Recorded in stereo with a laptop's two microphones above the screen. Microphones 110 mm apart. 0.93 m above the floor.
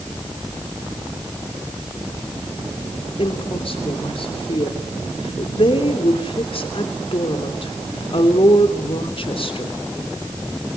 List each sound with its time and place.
3.2 s a woman speaking: 55° left (ahead or behind), 3 m